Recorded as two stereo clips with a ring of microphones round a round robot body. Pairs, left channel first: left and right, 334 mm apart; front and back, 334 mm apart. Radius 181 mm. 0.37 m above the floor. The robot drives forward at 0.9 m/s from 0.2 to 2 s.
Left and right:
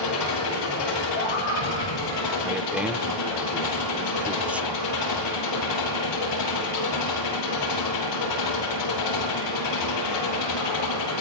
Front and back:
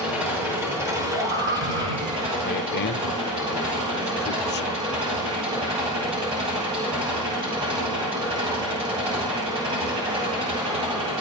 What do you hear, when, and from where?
0.0 s an engine running: 95° left, 8.5 m; by 11.2 s 105° left, 9 m
1.1 s a scream: 140° left, 7.5 m; by 2.3 s 145° left, 8 m
2.4 s a man speaking: 5° right, 1.0 m